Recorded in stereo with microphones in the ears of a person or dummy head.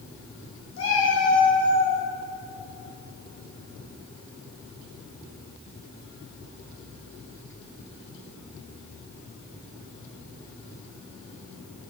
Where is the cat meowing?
75° left (ahead or behind), 4 m.